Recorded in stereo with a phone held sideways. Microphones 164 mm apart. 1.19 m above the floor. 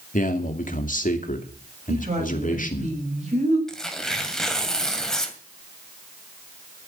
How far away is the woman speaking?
About 6 m.